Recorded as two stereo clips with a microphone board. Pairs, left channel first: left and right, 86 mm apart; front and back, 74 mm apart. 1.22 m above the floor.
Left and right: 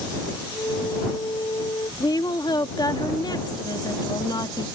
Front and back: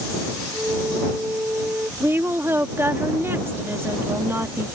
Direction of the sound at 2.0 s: 125° left.